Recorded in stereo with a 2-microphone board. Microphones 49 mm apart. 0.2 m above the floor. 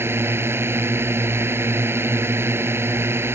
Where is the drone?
55° right (ahead or behind).